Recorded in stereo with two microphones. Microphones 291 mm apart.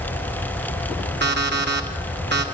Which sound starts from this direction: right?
An alarm clock, at 1.2 s.